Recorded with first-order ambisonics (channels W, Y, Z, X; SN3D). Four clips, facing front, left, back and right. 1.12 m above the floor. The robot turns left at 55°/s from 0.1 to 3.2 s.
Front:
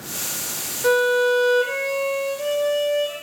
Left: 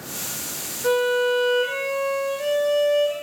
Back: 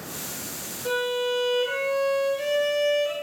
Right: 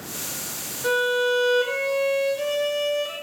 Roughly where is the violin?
Ahead.